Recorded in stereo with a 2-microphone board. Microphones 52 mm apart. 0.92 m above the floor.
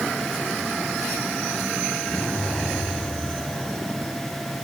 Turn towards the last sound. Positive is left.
turn(degrees=45)  # may be behind; listen again after turning